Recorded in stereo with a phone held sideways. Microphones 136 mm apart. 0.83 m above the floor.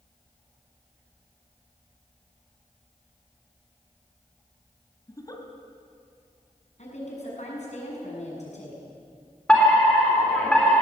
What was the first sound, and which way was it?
A giggle, 25° left (ahead or behind).